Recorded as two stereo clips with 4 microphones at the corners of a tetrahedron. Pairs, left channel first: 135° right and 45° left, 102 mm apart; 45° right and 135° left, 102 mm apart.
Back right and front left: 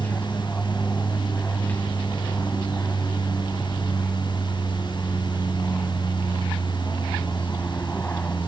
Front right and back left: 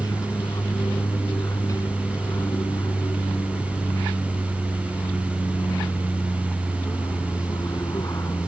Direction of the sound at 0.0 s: 70° right.